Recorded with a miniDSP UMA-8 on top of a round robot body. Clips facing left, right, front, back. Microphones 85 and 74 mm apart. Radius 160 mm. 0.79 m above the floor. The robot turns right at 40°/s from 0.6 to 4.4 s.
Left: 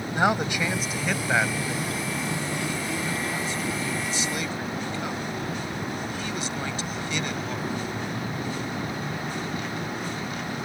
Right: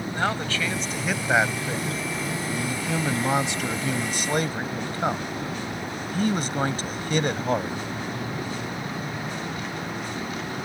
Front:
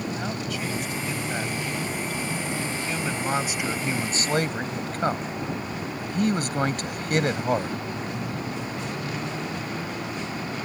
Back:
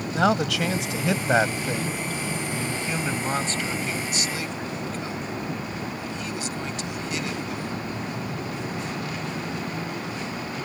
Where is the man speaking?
165° left; by 7.8 s 45° right.